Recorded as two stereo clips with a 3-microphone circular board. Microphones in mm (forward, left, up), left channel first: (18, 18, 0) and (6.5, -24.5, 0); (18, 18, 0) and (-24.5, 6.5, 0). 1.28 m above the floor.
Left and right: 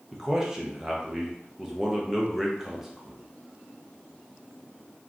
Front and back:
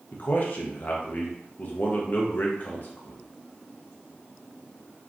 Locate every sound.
0.1 s a man speaking: 25° right, 0.5 m